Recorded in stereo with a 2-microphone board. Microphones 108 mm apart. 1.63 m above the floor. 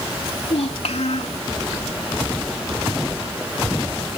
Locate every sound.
0.3 s a child speaking: 80° left